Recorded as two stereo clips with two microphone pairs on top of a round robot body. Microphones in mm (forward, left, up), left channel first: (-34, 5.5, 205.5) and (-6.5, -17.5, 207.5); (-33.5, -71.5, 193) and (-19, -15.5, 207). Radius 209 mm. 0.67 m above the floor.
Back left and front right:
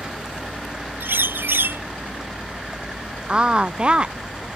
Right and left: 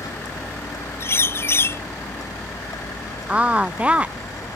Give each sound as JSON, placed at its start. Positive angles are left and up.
{"t": 0.0, "sound": "a vehicle", "azimuth_deg": -115}
{"t": 1.0, "sound": "a bird", "azimuth_deg": -60}
{"t": 3.3, "sound": "a woman speaking", "azimuth_deg": -5}